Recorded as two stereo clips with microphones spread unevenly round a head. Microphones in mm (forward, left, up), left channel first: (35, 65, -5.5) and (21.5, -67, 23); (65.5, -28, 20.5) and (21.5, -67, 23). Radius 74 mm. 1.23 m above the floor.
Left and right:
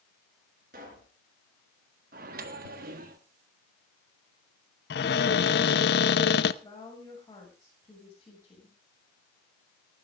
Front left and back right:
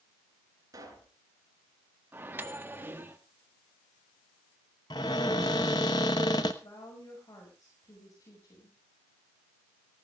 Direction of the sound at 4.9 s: 85° left.